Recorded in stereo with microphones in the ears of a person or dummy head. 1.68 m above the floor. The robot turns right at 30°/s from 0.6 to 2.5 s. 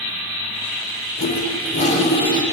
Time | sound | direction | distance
1.2 | a toilet flushing | 125° left | 4 m